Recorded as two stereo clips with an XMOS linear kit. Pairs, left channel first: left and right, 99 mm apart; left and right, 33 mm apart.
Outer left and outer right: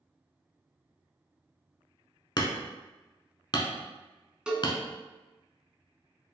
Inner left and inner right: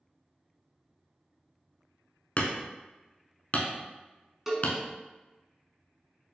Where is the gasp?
No gasp in this recording.